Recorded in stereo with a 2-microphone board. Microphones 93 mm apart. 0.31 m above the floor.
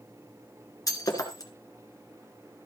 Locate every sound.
0.9 s breaking glass: 40° left (ahead or behind), 2.5 m